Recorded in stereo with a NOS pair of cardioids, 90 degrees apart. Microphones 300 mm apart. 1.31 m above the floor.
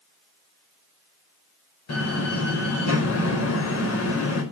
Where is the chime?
No chime in this recording.